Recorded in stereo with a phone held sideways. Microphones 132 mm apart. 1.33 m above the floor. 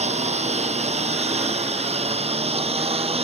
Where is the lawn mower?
55° right (ahead or behind); by 3.2 s 50° right (ahead or behind).